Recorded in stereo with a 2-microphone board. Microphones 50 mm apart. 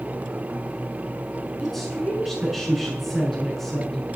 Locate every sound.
1.6 s a woman speaking: 5° left (ahead or behind), 6.5 m